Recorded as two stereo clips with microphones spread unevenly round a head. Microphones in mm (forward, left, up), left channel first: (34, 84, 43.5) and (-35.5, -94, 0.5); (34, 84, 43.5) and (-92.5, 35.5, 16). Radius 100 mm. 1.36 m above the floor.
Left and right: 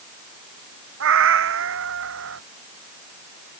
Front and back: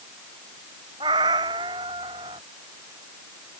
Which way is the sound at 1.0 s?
90° right.